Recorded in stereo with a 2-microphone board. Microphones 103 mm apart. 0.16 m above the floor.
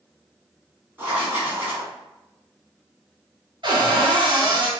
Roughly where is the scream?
I don't hear a scream.